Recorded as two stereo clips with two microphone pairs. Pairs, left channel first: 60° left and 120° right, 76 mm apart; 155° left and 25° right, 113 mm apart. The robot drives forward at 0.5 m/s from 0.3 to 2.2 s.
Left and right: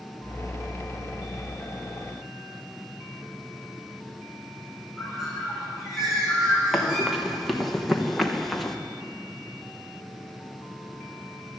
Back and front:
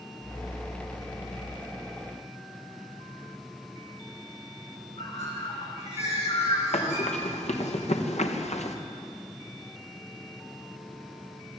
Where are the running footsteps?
150° left, 4 m.